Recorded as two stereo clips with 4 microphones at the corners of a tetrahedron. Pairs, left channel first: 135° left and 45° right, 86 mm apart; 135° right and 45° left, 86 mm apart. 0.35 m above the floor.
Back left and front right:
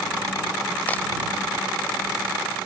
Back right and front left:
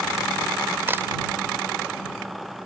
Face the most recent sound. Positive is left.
turn(degrees=85)